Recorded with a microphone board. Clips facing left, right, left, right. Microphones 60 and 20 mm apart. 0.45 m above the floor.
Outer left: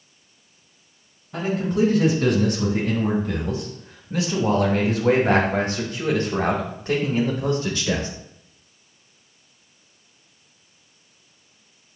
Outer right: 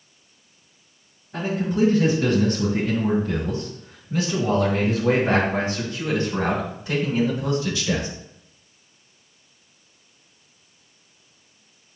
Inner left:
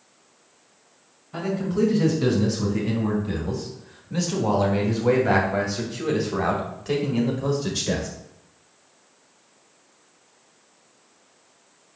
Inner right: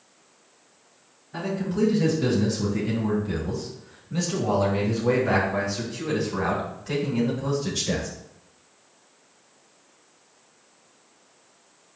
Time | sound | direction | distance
1.3 | a man speaking | 75° left (ahead or behind) | 4.5 m